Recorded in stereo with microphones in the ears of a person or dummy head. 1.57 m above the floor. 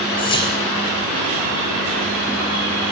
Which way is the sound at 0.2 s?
25° left (ahead or behind).